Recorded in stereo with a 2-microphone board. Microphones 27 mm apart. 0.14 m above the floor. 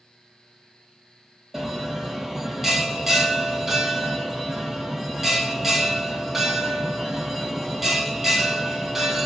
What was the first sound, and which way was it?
A bell, 15° right (ahead or behind).